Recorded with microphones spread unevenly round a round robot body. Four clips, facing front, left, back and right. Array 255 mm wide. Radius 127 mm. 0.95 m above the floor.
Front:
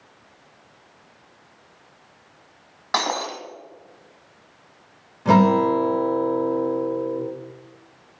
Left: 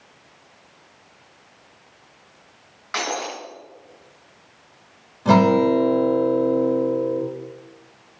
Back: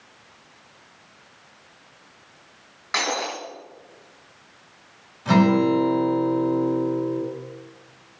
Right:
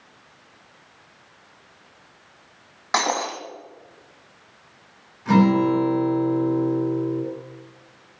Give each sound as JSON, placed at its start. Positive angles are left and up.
{"t": 2.9, "sound": "breaking glass", "azimuth_deg": -50, "distance_m": 2.0}
{"t": 5.2, "sound": "a guitar", "azimuth_deg": 50, "distance_m": 3.0}